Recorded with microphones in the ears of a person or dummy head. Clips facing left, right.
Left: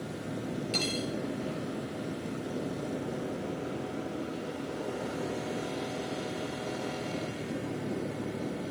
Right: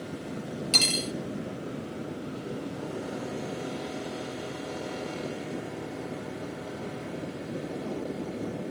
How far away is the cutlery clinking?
About 0.7 m.